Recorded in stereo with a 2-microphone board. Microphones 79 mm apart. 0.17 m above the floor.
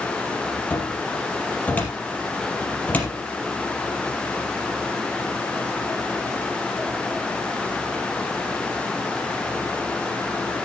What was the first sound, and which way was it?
A cupboard door, 20° left (ahead or behind).